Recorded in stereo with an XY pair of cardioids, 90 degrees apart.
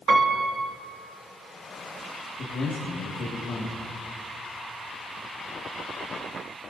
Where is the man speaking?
65° left, 2 m.